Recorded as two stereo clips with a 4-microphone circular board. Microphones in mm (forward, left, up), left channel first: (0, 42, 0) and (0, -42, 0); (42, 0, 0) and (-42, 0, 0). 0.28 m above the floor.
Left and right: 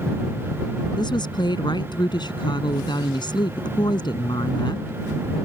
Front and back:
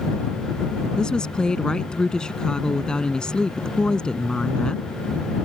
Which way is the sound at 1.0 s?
80° left.